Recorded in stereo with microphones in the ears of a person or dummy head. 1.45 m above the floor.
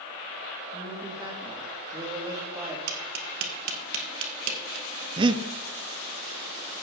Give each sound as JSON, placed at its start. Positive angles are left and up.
{"t": 0.7, "sound": "a man speaking", "side_deg": -20, "distance_m": 3.5}
{"t": 2.9, "sound": "tapping", "side_deg": -70, "distance_m": 2.0}
{"t": 5.2, "sound": "breathing", "side_deg": -30, "distance_m": 0.8}